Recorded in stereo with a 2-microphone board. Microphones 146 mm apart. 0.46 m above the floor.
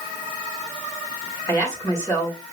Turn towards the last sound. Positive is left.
turn(degrees=25)  # may be behind; listen again after turning